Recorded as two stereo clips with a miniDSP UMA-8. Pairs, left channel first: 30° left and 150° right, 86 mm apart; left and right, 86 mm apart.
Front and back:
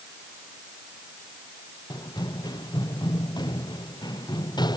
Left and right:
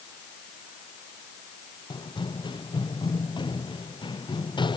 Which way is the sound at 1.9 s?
65° left.